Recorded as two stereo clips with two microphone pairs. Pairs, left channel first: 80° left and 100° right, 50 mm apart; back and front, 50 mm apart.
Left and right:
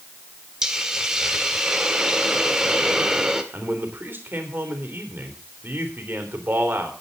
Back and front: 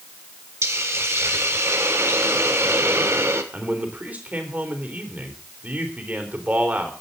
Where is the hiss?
25° right, 1.6 m.